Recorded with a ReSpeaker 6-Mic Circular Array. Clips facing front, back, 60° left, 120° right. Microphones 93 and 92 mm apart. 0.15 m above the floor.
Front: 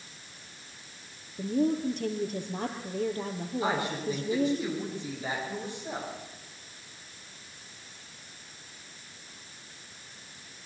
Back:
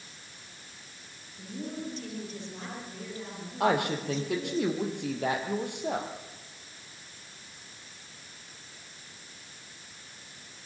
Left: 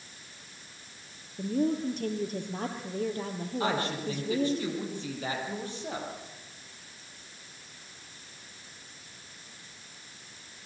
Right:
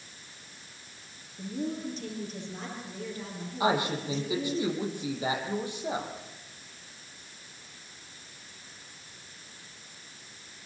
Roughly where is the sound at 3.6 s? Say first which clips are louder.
Back 4 dB, right 4 dB; behind.